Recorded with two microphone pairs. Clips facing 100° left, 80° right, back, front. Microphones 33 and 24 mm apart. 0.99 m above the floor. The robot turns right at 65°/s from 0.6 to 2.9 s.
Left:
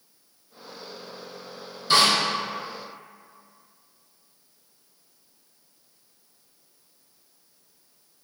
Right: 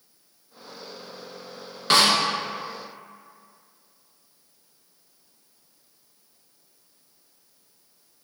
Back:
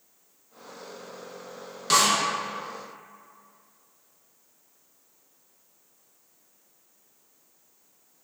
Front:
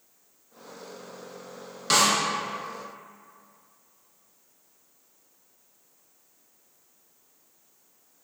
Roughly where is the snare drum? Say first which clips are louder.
Right 1 dB, even; right.